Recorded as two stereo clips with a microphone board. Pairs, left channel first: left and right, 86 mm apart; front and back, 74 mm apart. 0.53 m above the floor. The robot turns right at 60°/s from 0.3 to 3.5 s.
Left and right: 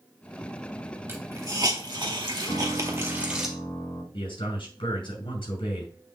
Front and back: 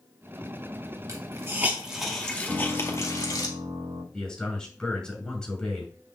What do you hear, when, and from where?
1.1 s a hiss: 150° right, 2.0 m; by 3.5 s 5° right, 2.0 m
2.5 s a piano: 95° left, 3 m; by 4.0 s 155° left, 3 m
4.1 s a man speaking: 80° left, 6 m